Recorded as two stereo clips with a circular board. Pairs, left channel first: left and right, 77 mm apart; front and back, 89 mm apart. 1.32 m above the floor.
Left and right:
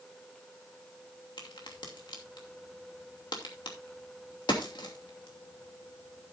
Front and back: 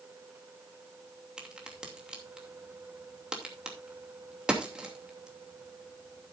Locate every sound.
1.4 s a crack: 100° left, 2.5 m